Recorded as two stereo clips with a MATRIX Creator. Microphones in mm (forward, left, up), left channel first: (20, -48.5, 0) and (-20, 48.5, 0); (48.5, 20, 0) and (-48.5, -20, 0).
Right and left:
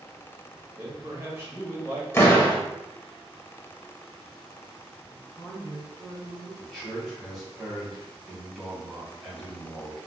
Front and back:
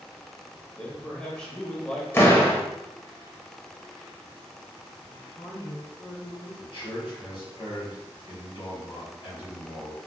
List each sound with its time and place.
0.8 s a man speaking: 95° left, 0.9 m
2.1 s a door slam: 25° right, 0.6 m
5.1 s a woman speaking: 15° right, 1.9 m
6.6 s a man speaking: 15° left, 1.7 m